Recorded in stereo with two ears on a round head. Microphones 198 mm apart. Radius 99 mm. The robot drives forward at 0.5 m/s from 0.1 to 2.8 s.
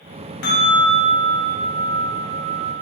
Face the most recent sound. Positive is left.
turn(degrees=20)  # may be behind; listen again after turning